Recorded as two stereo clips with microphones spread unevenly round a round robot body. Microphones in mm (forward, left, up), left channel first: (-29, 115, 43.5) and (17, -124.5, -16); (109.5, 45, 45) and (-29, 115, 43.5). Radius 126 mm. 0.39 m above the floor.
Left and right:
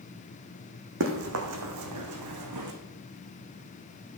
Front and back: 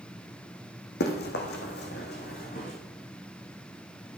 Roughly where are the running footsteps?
Ahead right.